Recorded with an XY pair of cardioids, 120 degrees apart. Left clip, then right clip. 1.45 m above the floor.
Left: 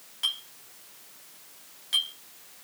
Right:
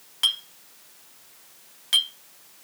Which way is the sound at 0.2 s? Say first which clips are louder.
Right 6 dB; 55° right.